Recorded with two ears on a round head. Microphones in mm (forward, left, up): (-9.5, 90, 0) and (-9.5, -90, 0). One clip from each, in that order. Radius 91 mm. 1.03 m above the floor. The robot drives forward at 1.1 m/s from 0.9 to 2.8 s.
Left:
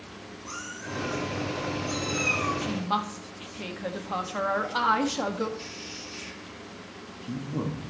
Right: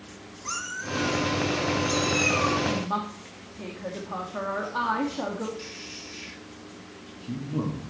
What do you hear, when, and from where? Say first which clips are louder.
0.5 s a cat meowing: right 6 dB; 50° right (ahead or behind), 2 m; by 2.5 s 25° right (ahead or behind), 3.5 m
2.6 s a woman speaking: right 1 dB; 55° left (ahead or behind), 1.5 m; by 5.5 s 60° left (ahead or behind), 1.4 m
5.6 s a man speaking: even; 5° left (ahead or behind), 2 m